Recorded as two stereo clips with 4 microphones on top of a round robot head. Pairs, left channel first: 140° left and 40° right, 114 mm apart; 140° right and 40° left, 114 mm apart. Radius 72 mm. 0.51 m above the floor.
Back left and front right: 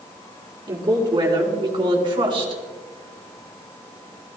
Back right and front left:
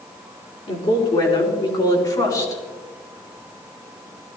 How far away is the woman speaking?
About 6 m.